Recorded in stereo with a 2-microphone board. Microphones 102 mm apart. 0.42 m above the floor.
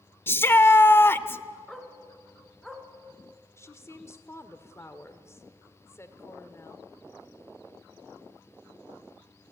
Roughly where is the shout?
Left.